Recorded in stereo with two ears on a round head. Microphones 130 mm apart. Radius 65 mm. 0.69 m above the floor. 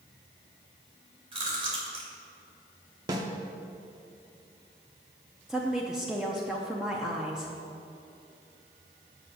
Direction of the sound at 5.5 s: 5° right (ahead or behind).